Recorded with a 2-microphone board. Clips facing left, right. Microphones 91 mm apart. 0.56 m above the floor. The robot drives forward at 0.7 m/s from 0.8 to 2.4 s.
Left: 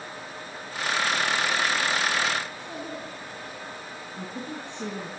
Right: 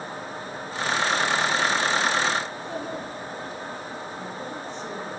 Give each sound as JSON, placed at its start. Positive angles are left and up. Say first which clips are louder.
{"t": 2.5, "sound": "a child speaking", "louder": "right 4 dB", "side_deg": -25, "distance_m": 7.5}
{"t": 4.2, "sound": "a woman speaking", "louder": "right 2 dB", "side_deg": 55, "distance_m": 8.5}